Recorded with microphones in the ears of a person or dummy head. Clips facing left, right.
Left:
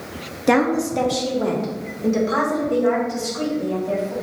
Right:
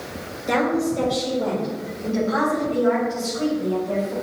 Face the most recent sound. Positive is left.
turn(degrees=65)  # may be behind; listen again after turning